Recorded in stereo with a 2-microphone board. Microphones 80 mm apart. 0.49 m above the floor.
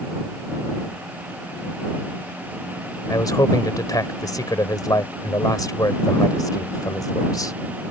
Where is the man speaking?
50° left (ahead or behind).